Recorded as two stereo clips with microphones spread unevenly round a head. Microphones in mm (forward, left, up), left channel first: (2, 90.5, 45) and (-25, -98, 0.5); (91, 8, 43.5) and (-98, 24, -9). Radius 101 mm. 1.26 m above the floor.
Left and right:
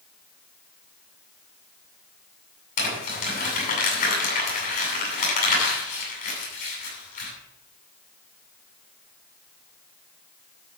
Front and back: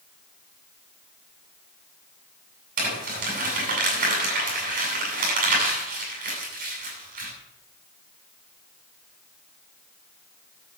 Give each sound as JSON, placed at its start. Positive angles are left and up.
{"t": 2.8, "sound": "crumpling", "azimuth_deg": 125, "distance_m": 8.5}